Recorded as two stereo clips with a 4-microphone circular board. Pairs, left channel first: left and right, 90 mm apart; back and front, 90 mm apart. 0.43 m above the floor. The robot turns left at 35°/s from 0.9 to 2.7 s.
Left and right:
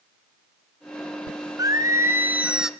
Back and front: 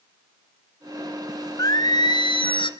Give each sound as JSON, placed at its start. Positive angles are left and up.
{"t": 1.6, "sound": "singing", "azimuth_deg": -135, "distance_m": 0.8}